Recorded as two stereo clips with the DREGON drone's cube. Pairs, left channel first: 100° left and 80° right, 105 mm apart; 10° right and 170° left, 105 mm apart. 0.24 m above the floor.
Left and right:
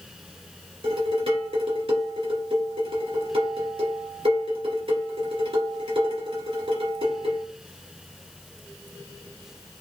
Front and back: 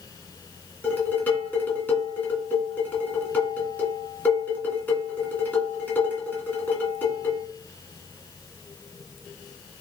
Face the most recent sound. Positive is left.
turn(degrees=-85)